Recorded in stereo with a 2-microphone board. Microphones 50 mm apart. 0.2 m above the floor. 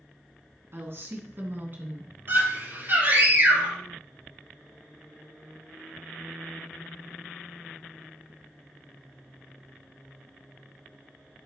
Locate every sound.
0.7 s a woman speaking: 50° right (ahead or behind), 2.5 m; by 2.1 s 40° right (ahead or behind), 2 m
2.3 s a scream: 55° right (ahead or behind), 5 m